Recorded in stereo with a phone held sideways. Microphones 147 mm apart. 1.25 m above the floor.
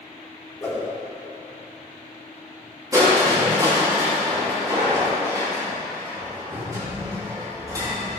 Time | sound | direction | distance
0.6 | a whoosh | 20° left (ahead or behind) | 3 m
2.9 | crushing | 25° right (ahead or behind) | 3 m